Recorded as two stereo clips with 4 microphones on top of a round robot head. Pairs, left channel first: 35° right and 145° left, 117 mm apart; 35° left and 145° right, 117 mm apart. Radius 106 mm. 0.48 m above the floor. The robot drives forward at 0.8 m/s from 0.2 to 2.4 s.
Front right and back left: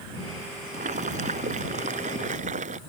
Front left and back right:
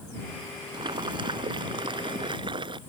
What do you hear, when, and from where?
0.7 s boiling: 165° left